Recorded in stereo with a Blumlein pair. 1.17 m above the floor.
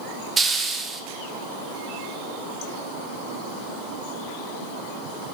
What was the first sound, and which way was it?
A hiss, 15° right.